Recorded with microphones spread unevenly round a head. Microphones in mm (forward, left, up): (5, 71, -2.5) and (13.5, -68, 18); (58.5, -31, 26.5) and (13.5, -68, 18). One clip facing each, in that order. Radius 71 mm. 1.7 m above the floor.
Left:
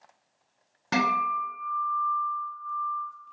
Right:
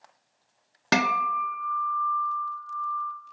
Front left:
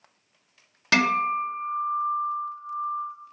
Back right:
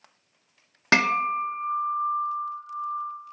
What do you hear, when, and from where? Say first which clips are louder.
0.9 s a guitar: right 1 dB, even; 80° right, 0.6 m